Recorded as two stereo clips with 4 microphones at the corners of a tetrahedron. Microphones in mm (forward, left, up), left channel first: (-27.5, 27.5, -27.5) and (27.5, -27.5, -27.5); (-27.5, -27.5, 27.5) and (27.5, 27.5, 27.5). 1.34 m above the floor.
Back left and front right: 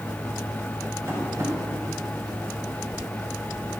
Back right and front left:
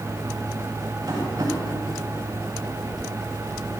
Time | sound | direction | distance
1.1 | tapping | 5° left | 8.5 m